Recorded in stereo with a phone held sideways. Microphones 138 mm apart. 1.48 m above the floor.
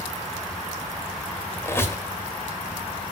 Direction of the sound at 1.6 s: 20° left (ahead or behind).